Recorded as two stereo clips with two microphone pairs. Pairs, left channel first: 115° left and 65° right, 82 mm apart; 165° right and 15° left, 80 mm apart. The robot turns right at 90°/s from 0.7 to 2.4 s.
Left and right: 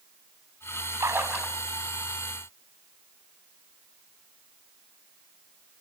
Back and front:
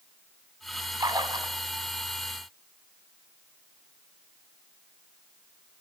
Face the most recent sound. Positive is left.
turn(degrees=100)